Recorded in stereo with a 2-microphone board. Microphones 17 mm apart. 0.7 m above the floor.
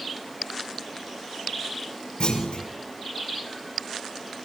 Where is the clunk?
75° left (ahead or behind), 6.5 m.